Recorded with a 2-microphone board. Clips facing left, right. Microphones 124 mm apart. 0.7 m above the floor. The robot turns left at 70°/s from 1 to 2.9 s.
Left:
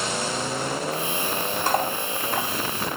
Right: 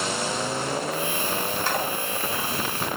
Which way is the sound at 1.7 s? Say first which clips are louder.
Left 3 dB; 45° left (ahead or behind).